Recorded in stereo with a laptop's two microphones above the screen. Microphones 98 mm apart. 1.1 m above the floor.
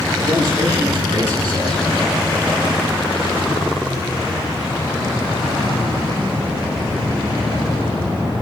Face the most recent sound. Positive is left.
turn(degrees=-45)  # may be behind; listen again after turning